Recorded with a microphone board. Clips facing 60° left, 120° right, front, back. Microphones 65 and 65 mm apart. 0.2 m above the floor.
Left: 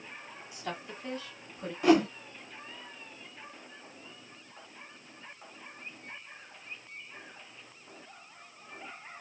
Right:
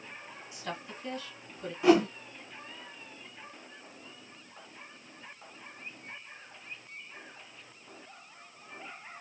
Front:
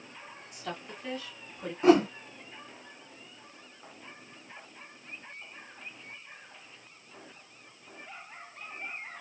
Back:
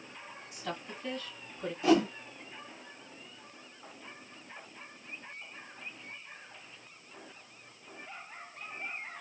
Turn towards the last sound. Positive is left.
turn(degrees=-30)